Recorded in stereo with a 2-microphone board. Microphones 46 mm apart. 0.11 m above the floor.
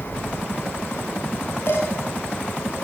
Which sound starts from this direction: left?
Dishes clattering, at 1.7 s.